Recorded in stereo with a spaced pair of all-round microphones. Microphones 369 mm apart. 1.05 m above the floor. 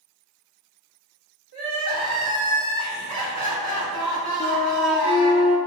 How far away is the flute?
About 0.7 m.